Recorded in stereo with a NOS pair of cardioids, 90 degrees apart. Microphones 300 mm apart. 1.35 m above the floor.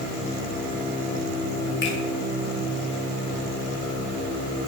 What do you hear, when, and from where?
1.8 s a finger snap: 40° left, 4.5 m